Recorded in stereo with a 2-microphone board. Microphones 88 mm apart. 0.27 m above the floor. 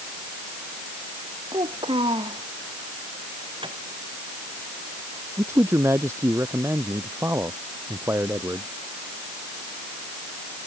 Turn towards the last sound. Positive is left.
turn(degrees=-30)  # may be behind; listen again after turning